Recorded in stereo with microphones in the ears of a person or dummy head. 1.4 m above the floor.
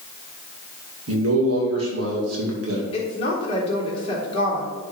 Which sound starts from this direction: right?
A man speaking, at 1.1 s.